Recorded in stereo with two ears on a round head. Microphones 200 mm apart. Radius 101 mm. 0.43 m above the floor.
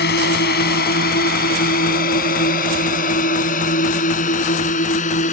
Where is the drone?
45° left (ahead or behind); by 5.3 s 35° left (ahead or behind).